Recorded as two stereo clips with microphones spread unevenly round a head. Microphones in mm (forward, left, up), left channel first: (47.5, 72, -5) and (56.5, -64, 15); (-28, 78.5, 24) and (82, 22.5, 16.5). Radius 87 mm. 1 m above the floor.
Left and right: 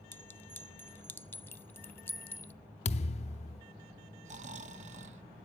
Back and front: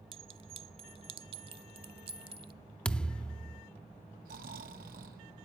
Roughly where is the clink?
Ahead.